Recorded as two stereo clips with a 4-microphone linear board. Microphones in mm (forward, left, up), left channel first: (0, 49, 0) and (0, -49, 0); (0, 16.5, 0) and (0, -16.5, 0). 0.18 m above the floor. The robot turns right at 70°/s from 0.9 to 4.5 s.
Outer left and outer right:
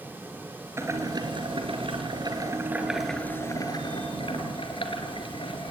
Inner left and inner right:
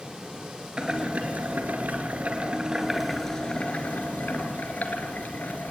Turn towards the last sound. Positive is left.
turn(degrees=105)